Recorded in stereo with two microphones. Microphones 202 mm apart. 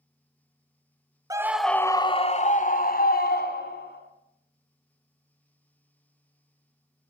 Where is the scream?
15° right (ahead or behind), 0.9 m; by 4.0 s 55° left (ahead or behind), 2.5 m.